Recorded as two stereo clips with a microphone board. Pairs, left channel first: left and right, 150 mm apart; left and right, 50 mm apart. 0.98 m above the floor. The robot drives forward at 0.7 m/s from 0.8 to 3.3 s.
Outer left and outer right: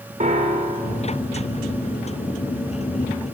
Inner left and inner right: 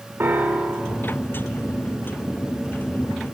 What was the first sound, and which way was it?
A piano, 55° right (ahead or behind).